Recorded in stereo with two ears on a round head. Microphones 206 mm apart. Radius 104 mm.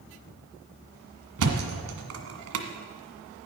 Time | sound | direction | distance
1.4 | a thud | 70° right (ahead or behind) | 1.6 m